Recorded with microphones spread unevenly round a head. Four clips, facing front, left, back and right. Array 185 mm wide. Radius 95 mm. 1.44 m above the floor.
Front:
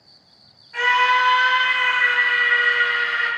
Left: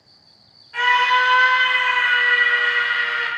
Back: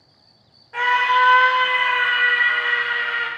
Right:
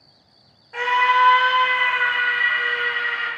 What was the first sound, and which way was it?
A scream, 135° right.